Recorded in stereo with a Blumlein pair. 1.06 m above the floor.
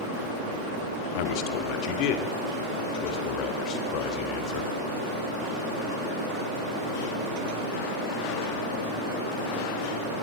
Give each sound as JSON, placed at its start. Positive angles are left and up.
{"t": 1.1, "sound": "a man speaking", "azimuth_deg": 45, "distance_m": 2.0}